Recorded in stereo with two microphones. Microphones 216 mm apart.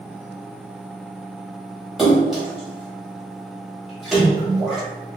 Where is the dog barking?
I don't hear a dog barking.